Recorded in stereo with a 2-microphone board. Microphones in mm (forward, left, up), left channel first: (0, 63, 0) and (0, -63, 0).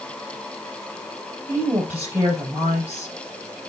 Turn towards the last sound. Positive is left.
turn(degrees=-15)  # may be behind; listen again after turning